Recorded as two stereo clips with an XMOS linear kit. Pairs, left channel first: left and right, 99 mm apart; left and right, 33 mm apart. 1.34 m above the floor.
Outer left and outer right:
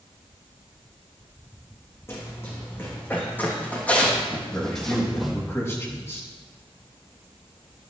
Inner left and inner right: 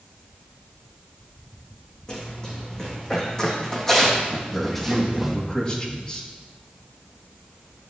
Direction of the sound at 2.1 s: 25° left (ahead or behind).